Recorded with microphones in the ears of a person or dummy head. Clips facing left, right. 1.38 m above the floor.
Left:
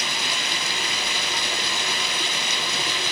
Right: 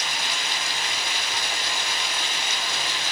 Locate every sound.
0.0 s running water: 65° left (ahead or behind), 1.2 m